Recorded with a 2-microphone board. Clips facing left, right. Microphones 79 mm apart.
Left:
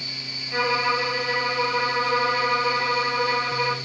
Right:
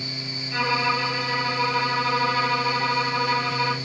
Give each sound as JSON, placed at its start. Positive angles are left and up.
{"t": 0.5, "sound": "a violin", "side_deg": 15, "distance_m": 1.3}